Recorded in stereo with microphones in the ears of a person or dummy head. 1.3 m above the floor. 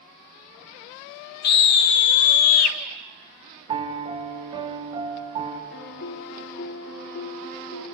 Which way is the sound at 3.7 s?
25° right (ahead or behind).